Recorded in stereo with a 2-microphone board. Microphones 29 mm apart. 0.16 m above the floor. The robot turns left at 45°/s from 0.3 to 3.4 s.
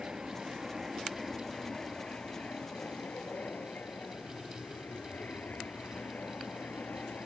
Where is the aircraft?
30° right (ahead or behind); by 7.3 s 65° left (ahead or behind).